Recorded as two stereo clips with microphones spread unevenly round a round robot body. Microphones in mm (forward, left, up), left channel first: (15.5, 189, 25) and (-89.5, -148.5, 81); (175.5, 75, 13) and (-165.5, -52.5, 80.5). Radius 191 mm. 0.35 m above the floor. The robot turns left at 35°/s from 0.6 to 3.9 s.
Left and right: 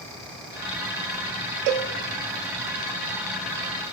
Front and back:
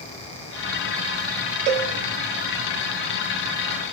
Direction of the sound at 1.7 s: 130° right.